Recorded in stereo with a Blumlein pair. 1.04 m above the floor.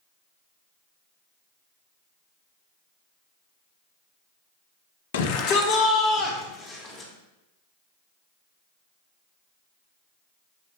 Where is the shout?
60° left, 0.8 m; by 7.1 s 20° left, 3 m.